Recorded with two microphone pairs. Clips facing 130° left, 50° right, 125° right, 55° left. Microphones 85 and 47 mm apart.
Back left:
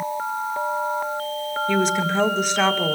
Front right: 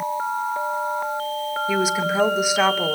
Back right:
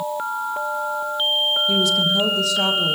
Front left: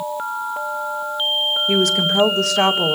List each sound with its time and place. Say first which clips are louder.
1.7 s a woman speaking: back left 1 dB, front left 4 dB; 35° left, 1.6 m